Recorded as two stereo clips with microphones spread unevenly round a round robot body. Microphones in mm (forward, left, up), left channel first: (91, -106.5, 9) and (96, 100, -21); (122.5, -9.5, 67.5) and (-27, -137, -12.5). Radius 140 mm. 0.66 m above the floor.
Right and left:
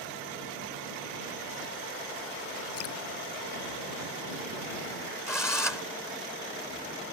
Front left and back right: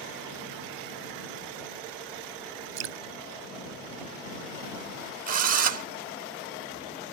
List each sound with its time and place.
2.8 s dripping: 140° right
5.3 s a drill: 175° right